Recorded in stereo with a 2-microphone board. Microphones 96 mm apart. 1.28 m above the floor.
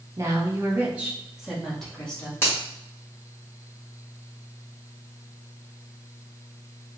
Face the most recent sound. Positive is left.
turn(degrees=25)  # may be behind; listen again after turning